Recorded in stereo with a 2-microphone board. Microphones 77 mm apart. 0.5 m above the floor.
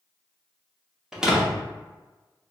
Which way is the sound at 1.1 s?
5° right (ahead or behind).